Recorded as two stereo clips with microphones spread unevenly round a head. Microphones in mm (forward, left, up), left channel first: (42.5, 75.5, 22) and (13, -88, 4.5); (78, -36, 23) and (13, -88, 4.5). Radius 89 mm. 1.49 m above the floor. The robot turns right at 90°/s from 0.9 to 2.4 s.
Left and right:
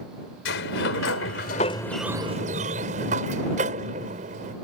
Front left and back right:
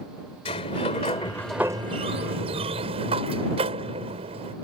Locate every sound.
0.5 s a sliding door: 70° left; by 4.5 s 155° right